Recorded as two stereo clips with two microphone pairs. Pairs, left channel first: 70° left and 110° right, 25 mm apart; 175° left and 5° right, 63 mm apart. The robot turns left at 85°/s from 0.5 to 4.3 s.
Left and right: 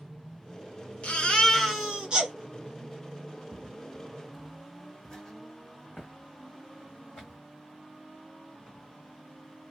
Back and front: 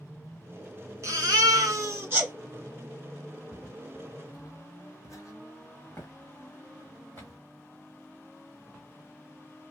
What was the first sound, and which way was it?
A baby crying, 35° left.